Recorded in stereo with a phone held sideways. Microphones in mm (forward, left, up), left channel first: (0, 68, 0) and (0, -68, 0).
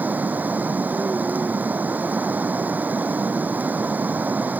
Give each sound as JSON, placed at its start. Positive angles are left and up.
{"t": 0.0, "sound": "running water", "side_deg": -10}